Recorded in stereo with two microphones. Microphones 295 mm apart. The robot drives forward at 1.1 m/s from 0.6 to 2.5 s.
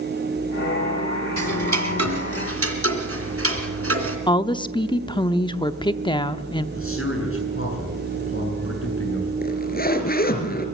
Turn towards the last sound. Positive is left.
turn(degrees=30)  # may be behind; listen again after turning